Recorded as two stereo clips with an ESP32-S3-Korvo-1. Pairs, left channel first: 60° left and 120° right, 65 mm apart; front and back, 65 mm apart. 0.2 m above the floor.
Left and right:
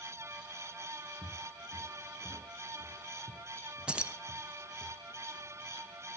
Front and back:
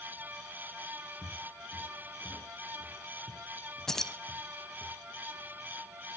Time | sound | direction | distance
1.2 | footsteps | 75° right | 4 m
3.9 | keys jangling | 70° right | 0.9 m